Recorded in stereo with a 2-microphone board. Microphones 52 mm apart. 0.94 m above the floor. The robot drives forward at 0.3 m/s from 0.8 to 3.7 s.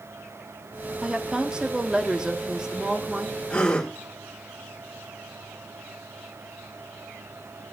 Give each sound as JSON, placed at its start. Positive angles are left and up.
{"t": 1.0, "sound": "a woman speaking", "side_deg": -20, "distance_m": 1.5}
{"t": 3.5, "sound": "a gasp", "side_deg": 20, "distance_m": 2.5}